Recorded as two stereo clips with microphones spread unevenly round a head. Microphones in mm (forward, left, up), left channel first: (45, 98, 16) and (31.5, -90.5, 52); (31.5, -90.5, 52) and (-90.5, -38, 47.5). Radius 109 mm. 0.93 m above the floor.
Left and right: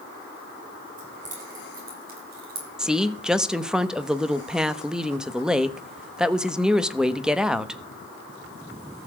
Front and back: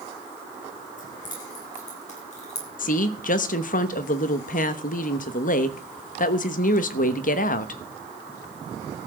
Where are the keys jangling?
45° right, 7.5 m; by 2.7 s 60° right, 6 m.